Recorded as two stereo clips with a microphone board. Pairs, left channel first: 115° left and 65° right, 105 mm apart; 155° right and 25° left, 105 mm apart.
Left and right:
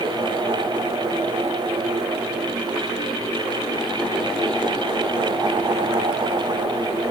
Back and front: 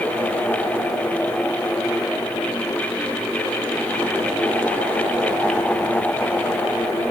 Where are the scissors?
No scissors in this recording.